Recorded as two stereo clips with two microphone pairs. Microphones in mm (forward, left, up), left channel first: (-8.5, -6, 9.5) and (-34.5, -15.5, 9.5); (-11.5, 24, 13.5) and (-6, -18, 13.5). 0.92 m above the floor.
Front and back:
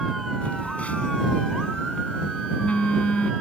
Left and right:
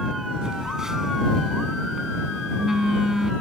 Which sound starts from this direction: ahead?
A phone buzzing, at 0.4 s.